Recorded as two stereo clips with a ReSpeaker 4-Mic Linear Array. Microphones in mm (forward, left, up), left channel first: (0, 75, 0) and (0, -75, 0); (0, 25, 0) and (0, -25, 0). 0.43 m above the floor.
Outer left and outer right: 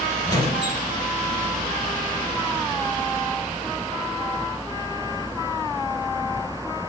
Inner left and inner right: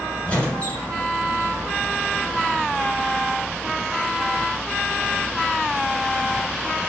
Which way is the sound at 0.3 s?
25° left (ahead or behind).